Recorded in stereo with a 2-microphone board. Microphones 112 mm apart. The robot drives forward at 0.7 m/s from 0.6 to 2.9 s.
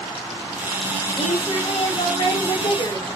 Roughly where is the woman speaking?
Left.